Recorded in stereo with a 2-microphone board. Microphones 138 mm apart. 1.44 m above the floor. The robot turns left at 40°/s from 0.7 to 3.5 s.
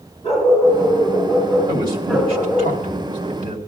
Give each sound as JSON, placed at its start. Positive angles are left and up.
{"t": 0.2, "sound": "a dog barking", "azimuth_deg": 55, "distance_m": 8.0}
{"t": 1.7, "sound": "a man speaking", "side_deg": -25, "distance_m": 2.5}